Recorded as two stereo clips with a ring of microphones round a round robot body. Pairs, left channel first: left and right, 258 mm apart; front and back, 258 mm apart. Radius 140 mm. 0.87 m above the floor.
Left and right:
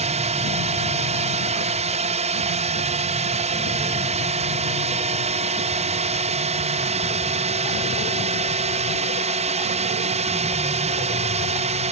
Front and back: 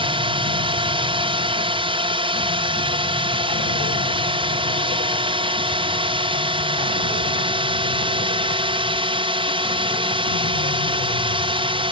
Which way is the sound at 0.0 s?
130° right.